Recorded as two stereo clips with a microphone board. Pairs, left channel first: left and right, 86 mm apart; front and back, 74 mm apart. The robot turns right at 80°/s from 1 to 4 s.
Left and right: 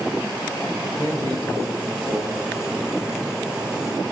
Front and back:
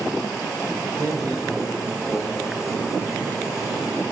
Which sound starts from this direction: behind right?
A man speaking, at 1.0 s.